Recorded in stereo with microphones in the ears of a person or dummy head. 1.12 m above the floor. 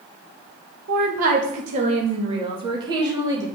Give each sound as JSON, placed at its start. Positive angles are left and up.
{"t": 0.9, "sound": "a woman speaking", "side_deg": -50, "distance_m": 1.4}